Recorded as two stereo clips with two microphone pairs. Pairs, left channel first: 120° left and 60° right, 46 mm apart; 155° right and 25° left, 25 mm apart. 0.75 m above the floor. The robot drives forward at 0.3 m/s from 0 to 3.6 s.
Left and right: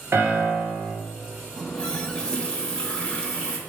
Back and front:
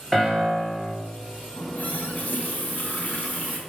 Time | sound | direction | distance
0.1 | a piano | 90° right | 2.5 m
1.6 | a running tap | 170° right | 1.0 m